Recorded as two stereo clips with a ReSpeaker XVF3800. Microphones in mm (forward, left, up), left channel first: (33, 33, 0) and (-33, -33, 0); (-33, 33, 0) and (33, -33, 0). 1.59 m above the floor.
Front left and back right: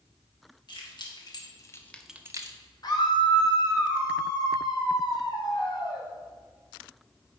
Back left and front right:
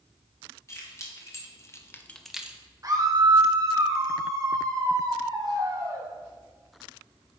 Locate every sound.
0.7 s keys jangling: 80° left, 1.7 m; by 2.6 s 120° right, 0.7 m
2.8 s a scream: 5° left, 1.4 m